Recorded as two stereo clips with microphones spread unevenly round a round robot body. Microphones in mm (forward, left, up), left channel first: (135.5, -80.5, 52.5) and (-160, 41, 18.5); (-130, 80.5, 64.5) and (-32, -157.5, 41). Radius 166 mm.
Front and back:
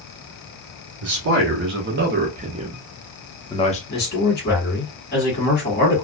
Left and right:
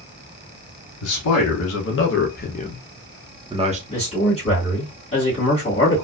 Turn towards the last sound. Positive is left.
turn(degrees=40)